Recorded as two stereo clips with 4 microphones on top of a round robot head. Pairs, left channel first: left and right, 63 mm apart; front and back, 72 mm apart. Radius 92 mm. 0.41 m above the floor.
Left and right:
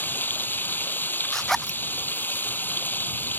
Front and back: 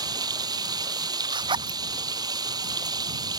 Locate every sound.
0.0 s running water: 150° left
1.3 s a zipper: 175° left